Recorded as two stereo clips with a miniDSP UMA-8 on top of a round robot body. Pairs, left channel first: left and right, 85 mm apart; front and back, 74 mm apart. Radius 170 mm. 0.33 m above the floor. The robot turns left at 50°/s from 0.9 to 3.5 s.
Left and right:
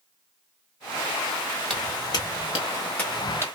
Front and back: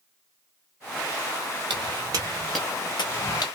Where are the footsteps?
175° left, 1.1 m; by 3.5 s 30° right, 0.9 m.